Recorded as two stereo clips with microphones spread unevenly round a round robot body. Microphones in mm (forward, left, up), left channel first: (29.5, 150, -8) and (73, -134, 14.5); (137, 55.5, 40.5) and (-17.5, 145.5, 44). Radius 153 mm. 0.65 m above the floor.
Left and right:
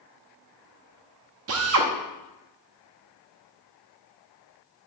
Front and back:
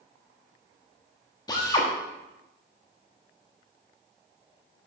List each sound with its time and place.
1.5 s a drill: 90° right, 1.1 m